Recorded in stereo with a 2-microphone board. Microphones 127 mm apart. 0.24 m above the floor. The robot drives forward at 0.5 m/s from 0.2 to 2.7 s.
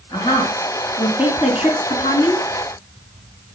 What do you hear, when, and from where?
0.1 s a woman speaking: 40° left (ahead or behind), 3 m; by 2.5 s 55° left (ahead or behind), 2 m